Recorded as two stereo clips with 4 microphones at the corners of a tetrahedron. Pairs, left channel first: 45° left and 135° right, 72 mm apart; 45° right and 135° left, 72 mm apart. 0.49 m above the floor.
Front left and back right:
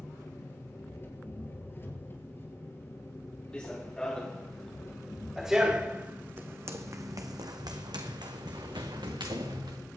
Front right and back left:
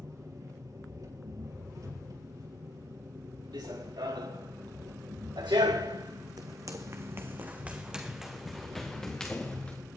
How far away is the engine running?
About 4.5 m.